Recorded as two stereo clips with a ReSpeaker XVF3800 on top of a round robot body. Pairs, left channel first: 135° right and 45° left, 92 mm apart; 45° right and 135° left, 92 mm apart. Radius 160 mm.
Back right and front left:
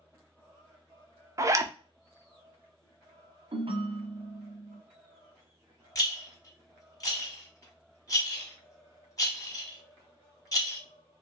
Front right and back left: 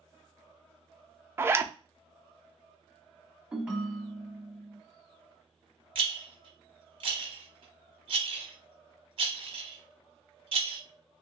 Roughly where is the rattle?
Behind.